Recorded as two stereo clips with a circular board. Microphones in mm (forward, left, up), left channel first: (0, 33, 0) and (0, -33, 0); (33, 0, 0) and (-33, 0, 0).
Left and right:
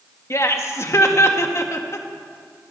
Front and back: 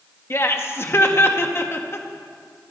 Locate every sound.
0.3 s laughter: 50° left, 1.5 m